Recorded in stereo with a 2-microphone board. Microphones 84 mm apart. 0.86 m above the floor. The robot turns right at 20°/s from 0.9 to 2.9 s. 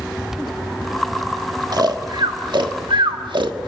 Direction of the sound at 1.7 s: 55° right (ahead or behind).